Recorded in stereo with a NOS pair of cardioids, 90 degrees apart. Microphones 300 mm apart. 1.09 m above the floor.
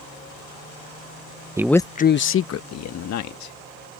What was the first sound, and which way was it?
A man speaking, 10° right.